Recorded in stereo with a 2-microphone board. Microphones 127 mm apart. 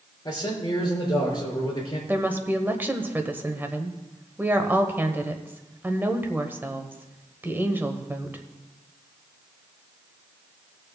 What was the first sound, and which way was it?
A man speaking, 35° left (ahead or behind).